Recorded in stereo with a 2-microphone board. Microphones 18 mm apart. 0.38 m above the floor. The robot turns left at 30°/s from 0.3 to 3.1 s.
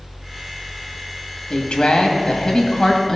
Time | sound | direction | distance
1.5 | a woman speaking | 80° left | 2 m